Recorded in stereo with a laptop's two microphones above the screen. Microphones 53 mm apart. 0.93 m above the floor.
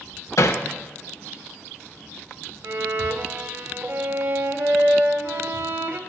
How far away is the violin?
About 0.6 m.